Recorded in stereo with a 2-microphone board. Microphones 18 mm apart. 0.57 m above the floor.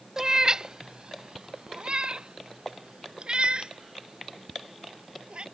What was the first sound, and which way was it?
A cat meowing, 30° right (ahead or behind).